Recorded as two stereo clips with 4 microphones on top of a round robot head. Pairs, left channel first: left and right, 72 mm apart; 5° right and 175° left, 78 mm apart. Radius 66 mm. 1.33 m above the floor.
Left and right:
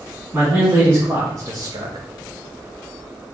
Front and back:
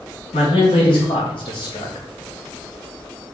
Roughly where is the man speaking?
Ahead.